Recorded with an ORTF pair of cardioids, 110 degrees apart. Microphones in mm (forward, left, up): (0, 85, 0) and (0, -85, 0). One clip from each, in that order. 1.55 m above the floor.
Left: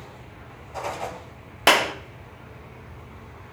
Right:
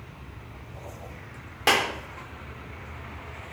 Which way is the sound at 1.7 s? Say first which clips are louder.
Left 4 dB; 40° left.